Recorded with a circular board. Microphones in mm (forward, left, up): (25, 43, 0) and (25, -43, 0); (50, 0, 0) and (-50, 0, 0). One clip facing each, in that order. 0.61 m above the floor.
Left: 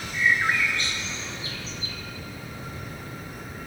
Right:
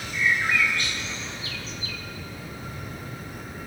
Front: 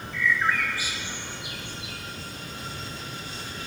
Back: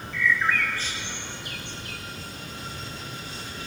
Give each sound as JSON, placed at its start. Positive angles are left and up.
{"t": 0.1, "sound": "a bird", "azimuth_deg": 70, "distance_m": 1.4}